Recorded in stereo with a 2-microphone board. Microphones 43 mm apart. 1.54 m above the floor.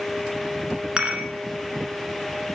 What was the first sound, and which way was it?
Dishes clattering, 30° right (ahead or behind).